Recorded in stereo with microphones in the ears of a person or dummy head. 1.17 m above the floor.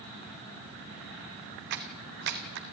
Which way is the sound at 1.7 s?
55° right (ahead or behind).